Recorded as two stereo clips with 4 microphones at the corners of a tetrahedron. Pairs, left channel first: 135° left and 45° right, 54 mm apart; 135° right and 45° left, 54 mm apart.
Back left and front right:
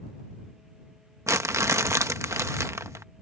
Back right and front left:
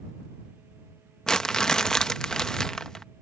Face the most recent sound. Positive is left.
turn(degrees=-60)